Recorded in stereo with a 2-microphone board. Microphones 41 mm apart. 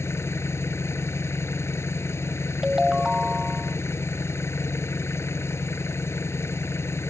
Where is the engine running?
85° left.